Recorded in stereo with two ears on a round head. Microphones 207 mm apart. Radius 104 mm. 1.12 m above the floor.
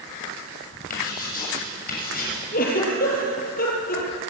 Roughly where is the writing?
Left.